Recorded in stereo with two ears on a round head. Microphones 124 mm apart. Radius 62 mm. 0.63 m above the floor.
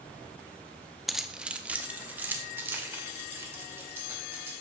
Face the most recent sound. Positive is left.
turn(degrees=-15)  # may be behind; listen again after turning